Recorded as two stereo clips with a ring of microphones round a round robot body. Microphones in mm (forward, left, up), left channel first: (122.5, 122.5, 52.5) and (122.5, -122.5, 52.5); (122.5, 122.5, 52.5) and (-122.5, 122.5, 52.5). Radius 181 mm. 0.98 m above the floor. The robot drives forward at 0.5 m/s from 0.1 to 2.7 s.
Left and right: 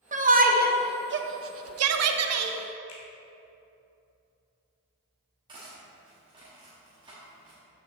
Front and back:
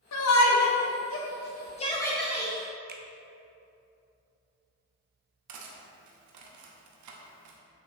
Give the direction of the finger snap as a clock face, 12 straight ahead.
8 o'clock.